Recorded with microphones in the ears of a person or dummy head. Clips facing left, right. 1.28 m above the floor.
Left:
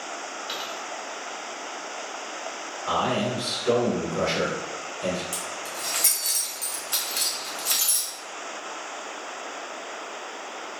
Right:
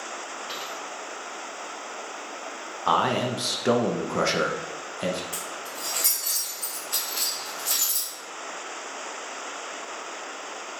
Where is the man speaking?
75° right (ahead or behind), 0.6 m.